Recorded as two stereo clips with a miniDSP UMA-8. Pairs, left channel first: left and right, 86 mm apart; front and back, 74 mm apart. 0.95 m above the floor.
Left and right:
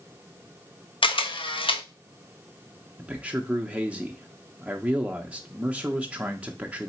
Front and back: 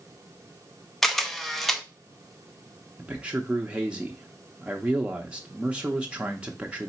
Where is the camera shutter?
85° left, 0.6 m.